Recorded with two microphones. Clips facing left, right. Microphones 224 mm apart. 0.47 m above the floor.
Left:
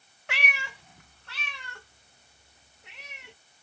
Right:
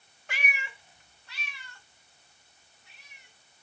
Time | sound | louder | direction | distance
0.3 | a cat meowing | left 3 dB | 65° left (ahead or behind) | ?